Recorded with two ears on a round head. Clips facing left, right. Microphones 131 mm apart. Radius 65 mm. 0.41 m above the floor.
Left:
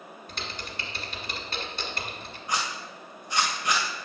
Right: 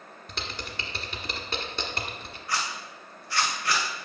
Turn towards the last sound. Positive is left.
turn(degrees=20)  # may be behind; listen again after turning